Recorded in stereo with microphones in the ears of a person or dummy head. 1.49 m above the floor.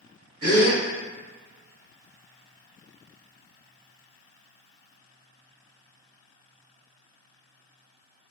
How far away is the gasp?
About 1.4 m.